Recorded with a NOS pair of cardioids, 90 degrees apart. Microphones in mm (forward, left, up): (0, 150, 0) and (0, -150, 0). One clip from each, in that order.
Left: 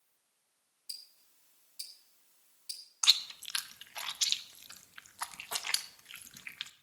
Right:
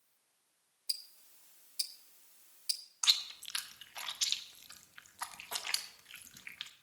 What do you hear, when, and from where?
0.9 s ticking: 40° right, 1.5 m
3.0 s chewing: 20° left, 0.9 m